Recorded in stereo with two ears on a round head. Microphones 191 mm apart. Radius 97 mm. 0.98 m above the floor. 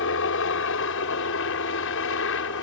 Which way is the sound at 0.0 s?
65° left (ahead or behind).